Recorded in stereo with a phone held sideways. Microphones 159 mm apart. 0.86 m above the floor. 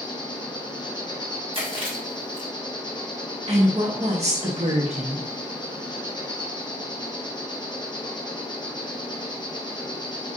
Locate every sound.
0.0 s an insect: 30° left (ahead or behind), 1.5 m
1.5 s chewing: 35° right (ahead or behind), 1.5 m
3.5 s a woman speaking: 45° right (ahead or behind), 1.4 m